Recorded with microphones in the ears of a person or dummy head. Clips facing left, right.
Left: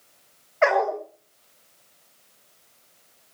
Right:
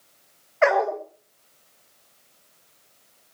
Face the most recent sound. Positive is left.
turn(degrees=-5)  # may be behind; listen again after turning